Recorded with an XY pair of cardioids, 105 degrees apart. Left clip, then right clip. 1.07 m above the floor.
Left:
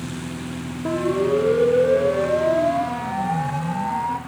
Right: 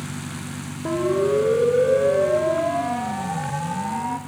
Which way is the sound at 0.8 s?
Straight ahead.